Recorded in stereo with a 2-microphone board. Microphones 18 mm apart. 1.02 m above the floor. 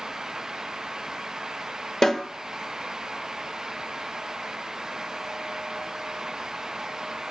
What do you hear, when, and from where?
2.0 s a snare drum: 35° left (ahead or behind), 0.6 m